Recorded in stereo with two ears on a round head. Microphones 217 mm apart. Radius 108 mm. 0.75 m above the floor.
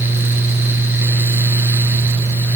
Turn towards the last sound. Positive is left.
No sound to turn to.